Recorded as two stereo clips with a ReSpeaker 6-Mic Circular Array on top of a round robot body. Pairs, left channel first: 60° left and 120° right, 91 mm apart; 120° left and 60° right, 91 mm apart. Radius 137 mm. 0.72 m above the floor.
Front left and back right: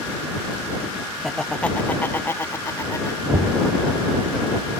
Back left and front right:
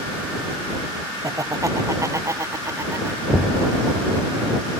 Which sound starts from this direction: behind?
Knocking, at 3.3 s.